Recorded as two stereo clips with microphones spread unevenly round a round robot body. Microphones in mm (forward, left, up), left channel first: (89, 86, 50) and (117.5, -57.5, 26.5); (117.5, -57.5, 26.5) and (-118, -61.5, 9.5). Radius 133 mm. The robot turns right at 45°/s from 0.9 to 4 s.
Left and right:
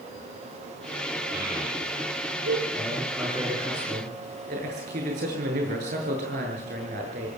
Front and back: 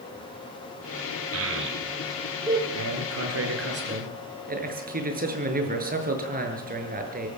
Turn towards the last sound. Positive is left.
turn(degrees=-125)